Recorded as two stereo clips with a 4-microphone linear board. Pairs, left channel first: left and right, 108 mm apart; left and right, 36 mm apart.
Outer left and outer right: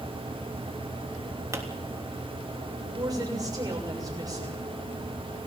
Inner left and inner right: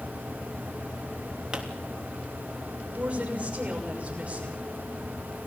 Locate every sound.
1.5 s a pop: 30° right (ahead or behind), 3 m
2.9 s a woman speaking: 35° right (ahead or behind), 6.5 m